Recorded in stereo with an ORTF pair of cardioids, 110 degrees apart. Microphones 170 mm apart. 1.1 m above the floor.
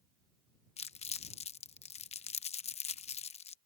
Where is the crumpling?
40° left.